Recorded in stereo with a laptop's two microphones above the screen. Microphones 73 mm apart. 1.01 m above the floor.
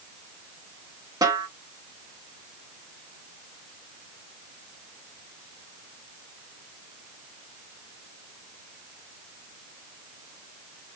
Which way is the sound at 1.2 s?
65° right (ahead or behind).